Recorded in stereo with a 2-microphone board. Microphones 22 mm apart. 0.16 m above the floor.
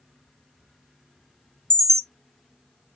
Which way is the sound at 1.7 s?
35° left (ahead or behind).